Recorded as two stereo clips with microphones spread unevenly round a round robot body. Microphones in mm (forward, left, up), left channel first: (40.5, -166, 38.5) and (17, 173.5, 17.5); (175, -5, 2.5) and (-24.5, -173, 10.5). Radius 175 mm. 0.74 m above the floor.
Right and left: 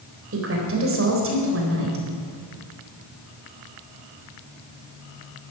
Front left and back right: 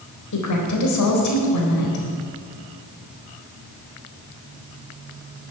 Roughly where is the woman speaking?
Ahead left.